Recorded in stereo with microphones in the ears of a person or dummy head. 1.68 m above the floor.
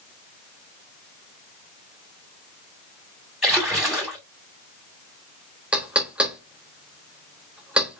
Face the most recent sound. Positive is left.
turn(degrees=-5)  # may be behind; listen again after turning